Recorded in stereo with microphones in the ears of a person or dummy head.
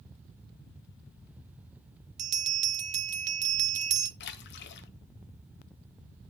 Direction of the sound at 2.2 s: 40° right (ahead or behind).